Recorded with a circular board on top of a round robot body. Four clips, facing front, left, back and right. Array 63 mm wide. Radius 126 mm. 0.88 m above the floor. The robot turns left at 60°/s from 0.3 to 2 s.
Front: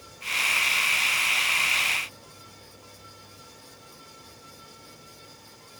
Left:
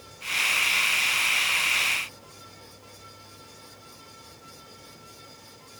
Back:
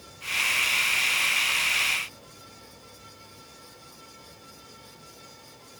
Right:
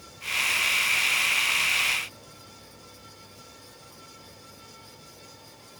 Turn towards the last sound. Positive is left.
No sound to turn to.